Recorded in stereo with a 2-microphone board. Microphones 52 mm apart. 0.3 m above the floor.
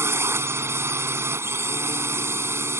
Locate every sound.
0.0 s a drone: 55° right (ahead or behind)